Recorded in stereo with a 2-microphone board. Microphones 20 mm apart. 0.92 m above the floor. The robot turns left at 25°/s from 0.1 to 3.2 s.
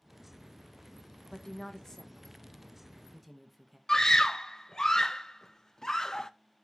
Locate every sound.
1.3 s a woman speaking: 30° left (ahead or behind), 1.1 m; by 3.8 s centre (ahead or behind), 1.1 m
3.9 s a scream: 30° left (ahead or behind), 0.5 m